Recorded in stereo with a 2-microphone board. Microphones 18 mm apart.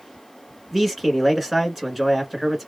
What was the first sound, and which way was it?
A man speaking, 10° right (ahead or behind).